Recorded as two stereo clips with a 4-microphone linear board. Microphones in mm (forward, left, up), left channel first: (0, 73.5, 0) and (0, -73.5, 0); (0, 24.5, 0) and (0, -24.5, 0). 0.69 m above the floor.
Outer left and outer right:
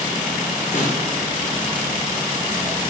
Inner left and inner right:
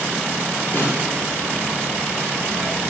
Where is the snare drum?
55° left (ahead or behind), 0.6 m.